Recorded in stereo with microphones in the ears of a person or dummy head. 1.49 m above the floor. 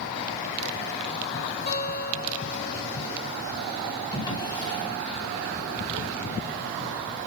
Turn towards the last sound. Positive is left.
turn(degrees=25)  # may be behind; listen again after turning